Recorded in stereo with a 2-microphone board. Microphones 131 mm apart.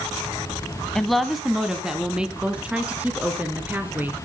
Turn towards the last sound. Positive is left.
turn(degrees=-15)  # may be behind; listen again after turning